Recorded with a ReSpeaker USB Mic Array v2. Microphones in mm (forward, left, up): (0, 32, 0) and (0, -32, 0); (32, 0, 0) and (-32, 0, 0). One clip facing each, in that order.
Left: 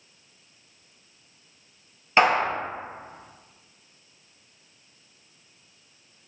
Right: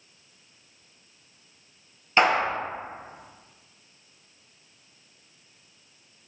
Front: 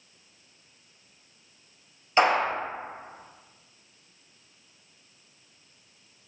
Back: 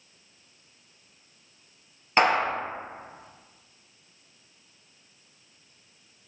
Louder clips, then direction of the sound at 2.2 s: Left 1 dB, even; 150° left.